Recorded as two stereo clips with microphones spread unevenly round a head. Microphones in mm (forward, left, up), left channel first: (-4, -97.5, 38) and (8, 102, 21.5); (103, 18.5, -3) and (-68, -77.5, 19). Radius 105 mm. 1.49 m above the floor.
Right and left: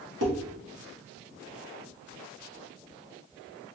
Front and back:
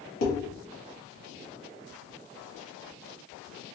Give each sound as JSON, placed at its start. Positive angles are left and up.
{"t": 0.2, "sound": "dishes clattering", "azimuth_deg": 60, "distance_m": 2.0}